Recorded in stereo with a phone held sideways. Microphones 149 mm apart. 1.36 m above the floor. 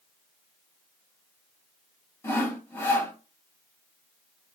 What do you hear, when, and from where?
2.2 s sawing: 15° left (ahead or behind), 0.7 m